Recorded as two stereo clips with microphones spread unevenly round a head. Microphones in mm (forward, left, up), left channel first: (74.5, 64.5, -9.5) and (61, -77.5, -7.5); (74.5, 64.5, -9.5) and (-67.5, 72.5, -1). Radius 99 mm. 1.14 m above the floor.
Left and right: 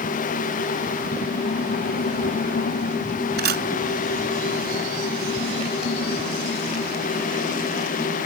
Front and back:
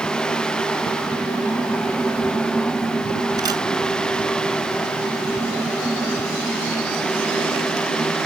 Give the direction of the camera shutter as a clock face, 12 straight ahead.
4 o'clock.